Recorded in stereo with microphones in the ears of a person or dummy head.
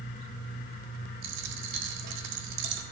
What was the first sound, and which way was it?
A dropped coin, 60° right (ahead or behind).